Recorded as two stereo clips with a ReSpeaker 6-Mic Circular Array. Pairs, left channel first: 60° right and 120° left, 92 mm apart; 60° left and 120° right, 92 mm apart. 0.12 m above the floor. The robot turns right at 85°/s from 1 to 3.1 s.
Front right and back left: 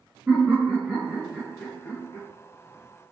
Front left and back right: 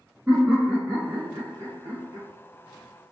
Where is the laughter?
Straight behind, 1.3 m; by 2.3 s 75° right, 1.3 m.